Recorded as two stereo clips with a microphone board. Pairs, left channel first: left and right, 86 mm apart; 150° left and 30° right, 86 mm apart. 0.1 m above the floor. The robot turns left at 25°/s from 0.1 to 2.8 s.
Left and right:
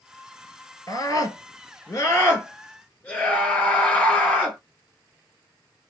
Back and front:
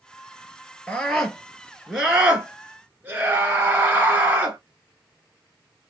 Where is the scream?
75° left, 2.5 m; by 4.6 s 25° left, 2.5 m.